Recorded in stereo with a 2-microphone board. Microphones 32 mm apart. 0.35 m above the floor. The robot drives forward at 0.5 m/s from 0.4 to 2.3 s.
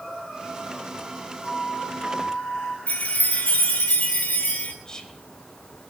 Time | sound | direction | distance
1.4 | a flute | 40° left (ahead or behind) | 3 m
2.9 | a chime | 55° left (ahead or behind) | 3 m
4.8 | whispering | 20° left (ahead or behind) | 1.9 m